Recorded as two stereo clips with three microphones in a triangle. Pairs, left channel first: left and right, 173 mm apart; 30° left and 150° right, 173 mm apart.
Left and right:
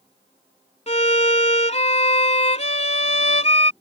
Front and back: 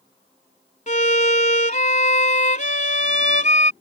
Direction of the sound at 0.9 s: 50° left.